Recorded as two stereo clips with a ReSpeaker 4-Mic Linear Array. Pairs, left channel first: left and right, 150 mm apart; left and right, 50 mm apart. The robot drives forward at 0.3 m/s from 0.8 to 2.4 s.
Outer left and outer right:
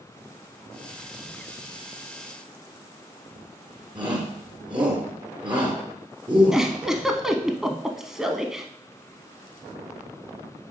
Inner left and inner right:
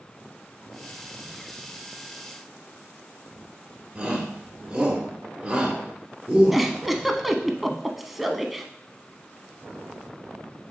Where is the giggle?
5° right (ahead or behind), 0.6 m.